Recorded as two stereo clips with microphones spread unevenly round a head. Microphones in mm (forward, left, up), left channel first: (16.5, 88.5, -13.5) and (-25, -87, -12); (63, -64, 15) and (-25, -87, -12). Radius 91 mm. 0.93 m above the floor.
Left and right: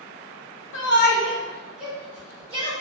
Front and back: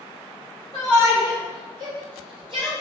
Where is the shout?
90° left, 0.7 m; by 2.7 s 160° right, 1.4 m.